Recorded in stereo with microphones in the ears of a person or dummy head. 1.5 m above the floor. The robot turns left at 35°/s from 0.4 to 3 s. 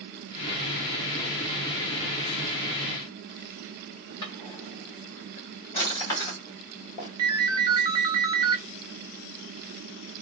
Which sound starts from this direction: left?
A drawer, at 4.2 s.